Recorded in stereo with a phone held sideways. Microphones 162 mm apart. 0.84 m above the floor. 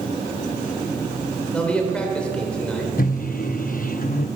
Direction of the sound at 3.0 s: 60° left (ahead or behind).